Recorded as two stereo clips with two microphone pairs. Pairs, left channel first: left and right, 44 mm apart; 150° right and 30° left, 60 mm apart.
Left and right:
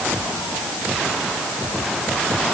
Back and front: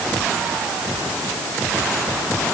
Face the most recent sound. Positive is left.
No sound to turn to.